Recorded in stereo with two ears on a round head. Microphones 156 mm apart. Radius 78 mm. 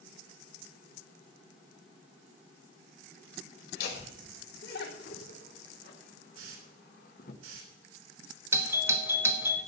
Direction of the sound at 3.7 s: 65° left (ahead or behind).